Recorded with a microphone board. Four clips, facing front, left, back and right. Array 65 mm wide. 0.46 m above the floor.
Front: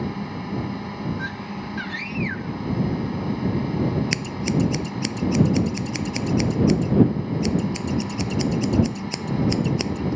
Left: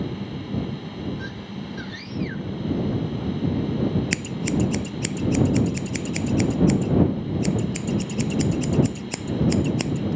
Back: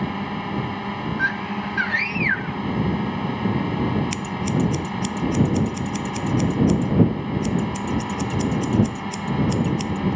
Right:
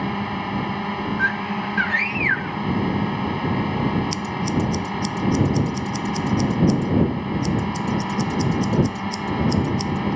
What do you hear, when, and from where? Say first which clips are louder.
0.0 s a drone: right 6 dB, back 3 dB; 115° right
1.2 s a scream: right 12 dB, back 7 dB; 125° right
4.1 s scissors: right 2 dB, even; 45° left